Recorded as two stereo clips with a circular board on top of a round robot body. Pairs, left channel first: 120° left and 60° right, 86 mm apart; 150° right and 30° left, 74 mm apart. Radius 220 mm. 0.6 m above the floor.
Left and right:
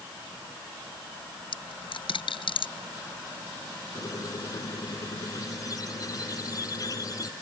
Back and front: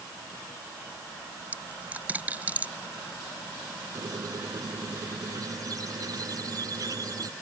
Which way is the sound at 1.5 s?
100° left.